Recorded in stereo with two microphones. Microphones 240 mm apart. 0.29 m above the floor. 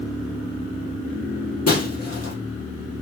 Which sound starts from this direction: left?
Breaking glass, at 1.7 s.